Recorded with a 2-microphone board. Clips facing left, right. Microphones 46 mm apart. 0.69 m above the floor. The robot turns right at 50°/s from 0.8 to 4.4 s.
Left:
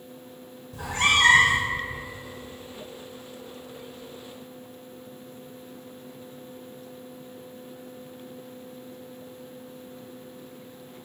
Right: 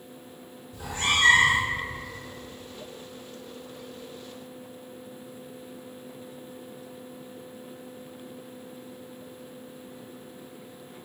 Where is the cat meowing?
75° left, 1.2 m; by 1.7 s 120° left, 1.2 m.